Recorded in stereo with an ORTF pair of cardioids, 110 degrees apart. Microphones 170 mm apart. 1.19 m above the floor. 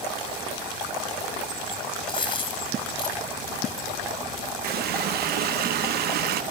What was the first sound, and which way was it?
A dropped coin, 30° left.